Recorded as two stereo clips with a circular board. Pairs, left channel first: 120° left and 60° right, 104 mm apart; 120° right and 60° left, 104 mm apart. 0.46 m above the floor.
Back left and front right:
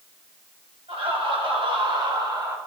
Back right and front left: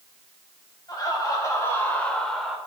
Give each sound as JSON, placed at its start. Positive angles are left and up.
{"t": 0.9, "sound": "laughter", "azimuth_deg": -75, "distance_m": 3.0}